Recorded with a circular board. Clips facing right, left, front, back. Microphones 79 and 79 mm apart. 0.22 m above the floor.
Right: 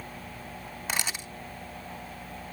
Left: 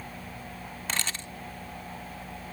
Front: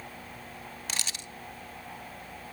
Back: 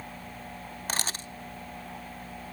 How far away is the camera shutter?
About 0.5 m.